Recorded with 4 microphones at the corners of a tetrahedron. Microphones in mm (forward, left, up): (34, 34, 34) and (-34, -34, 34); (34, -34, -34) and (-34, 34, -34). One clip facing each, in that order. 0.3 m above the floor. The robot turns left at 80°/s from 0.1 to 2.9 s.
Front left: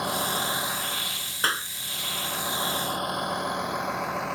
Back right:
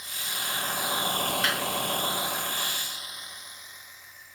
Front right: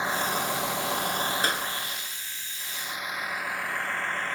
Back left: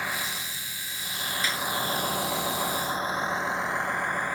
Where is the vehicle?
25° left; by 4.4 s 55° left.